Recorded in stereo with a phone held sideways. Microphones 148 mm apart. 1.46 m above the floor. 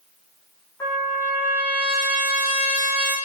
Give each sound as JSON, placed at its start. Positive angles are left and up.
{"t": 0.8, "sound": "a trumpet", "side_deg": 20, "distance_m": 3.5}